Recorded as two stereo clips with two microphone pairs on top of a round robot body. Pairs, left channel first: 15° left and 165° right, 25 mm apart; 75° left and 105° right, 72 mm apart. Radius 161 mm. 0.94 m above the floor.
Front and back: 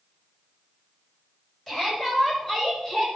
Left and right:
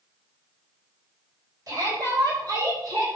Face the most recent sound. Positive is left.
turn(degrees=-70)